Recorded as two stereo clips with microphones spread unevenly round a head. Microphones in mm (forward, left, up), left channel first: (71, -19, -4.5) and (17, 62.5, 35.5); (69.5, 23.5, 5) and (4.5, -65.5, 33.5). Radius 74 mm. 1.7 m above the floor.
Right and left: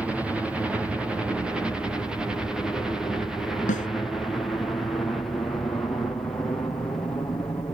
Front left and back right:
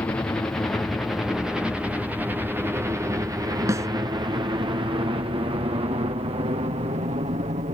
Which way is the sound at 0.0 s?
20° left.